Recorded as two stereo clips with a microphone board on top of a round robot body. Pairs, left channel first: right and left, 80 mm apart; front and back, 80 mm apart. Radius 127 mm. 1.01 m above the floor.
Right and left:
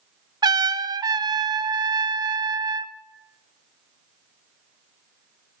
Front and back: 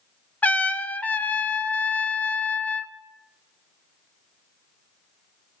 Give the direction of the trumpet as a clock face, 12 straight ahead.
10 o'clock.